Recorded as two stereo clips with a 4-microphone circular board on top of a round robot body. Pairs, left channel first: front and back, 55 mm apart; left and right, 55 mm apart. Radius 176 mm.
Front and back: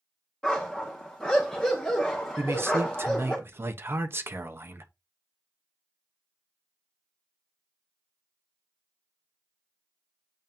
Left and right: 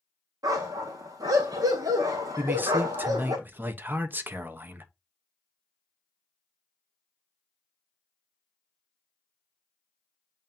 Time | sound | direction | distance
0.4 | a dog barking | 80° right | 0.8 m
2.4 | a man speaking | 140° right | 1.2 m